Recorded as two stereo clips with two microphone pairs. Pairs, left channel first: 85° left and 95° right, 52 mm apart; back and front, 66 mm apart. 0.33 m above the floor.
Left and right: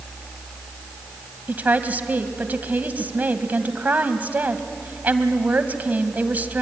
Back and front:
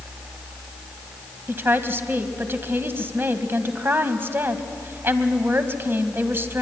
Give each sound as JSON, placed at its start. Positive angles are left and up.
{"t": 1.5, "sound": "a woman speaking", "azimuth_deg": -50, "distance_m": 2.0}